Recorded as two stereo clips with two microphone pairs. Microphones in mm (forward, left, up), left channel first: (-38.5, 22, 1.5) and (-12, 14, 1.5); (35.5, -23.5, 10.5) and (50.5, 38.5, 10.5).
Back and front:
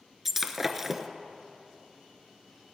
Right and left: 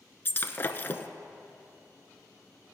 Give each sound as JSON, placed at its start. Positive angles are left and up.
{"t": 0.2, "sound": "breaking glass", "azimuth_deg": -90, "distance_m": 0.7}